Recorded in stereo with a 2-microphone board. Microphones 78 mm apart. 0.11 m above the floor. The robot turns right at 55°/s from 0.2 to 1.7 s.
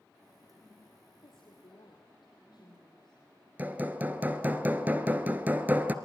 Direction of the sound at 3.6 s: 20° right (ahead or behind).